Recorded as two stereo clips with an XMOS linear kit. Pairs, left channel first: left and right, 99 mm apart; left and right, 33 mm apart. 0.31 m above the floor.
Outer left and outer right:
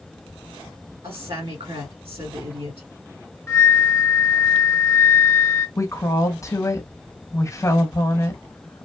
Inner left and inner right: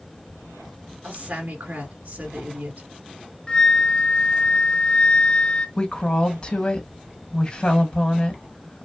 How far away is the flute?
About 1.4 m.